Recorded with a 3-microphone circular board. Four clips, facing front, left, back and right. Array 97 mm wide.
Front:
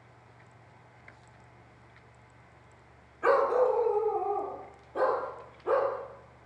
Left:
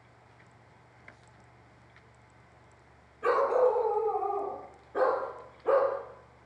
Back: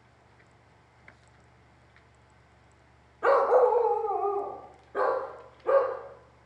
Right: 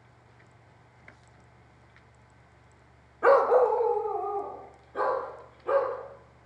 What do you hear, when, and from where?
3.2 s a dog barking: 100° right, 0.6 m; by 6.0 s 145° left, 3.5 m